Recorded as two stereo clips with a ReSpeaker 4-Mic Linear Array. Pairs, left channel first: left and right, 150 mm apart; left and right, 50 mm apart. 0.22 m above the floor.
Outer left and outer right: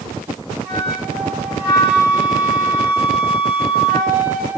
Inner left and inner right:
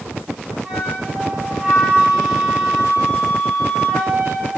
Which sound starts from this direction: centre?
A flute, at 0.6 s.